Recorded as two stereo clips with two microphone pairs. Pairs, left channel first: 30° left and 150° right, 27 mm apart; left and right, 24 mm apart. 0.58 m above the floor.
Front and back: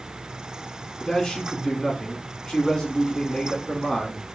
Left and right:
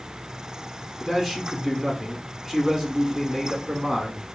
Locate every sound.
1.0 s a man speaking: 20° right, 1.1 m